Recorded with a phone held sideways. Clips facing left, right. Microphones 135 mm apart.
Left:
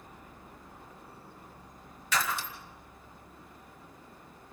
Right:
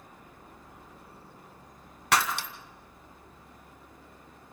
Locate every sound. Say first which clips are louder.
2.1 s breaking glass: right 5 dB; 65° right (ahead or behind), 2 m